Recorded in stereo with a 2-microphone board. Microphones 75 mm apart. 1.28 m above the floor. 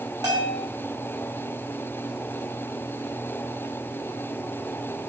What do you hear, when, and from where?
0.2 s a bell: 60° right (ahead or behind), 3.5 m